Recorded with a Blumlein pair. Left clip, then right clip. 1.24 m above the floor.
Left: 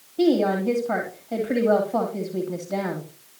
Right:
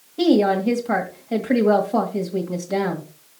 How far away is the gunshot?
No gunshot in this recording.